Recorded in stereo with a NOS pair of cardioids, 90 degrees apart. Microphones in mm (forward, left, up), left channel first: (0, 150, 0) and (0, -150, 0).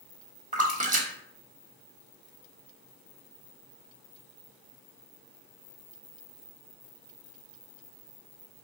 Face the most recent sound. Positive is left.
turn(degrees=-25)